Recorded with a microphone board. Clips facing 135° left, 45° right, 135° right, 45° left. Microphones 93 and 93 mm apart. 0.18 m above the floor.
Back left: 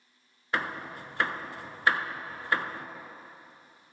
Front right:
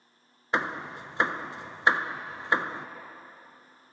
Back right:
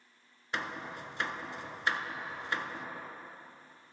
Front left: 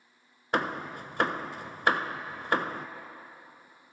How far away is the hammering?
About 0.7 m.